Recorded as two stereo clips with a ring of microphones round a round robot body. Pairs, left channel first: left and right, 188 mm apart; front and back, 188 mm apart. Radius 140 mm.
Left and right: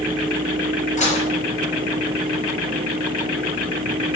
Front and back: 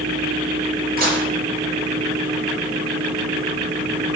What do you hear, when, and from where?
1.0 s dishes clattering: 140° left, 4.5 m